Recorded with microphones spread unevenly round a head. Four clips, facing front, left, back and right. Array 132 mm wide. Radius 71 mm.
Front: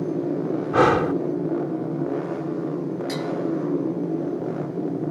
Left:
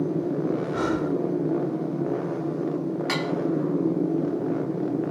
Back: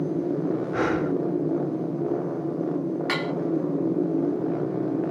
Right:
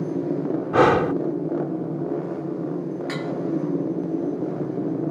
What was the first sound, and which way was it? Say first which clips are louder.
Breathing: right 8 dB, front 9 dB; 55° right.